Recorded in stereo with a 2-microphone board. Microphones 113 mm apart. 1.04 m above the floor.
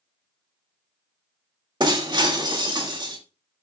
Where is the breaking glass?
40° right (ahead or behind), 2 m.